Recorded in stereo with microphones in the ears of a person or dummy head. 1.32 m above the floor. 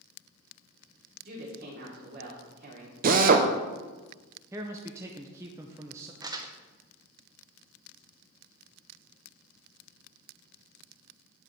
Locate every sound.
1.2 s a woman speaking: 60° right (ahead or behind), 3 m
3.0 s a drill: 45° right (ahead or behind), 0.7 m
4.5 s a man speaking: 15° right (ahead or behind), 0.6 m
6.2 s crumpling: 20° right (ahead or behind), 0.7 m